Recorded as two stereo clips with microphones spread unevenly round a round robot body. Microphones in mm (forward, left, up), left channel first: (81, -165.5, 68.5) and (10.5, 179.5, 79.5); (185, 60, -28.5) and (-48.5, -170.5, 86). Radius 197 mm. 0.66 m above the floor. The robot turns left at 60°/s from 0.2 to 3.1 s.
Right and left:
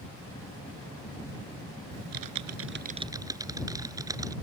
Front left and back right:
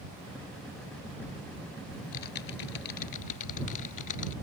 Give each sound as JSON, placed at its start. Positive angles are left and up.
{"t": 1.9, "sound": "typing on a keyboard", "azimuth_deg": 95}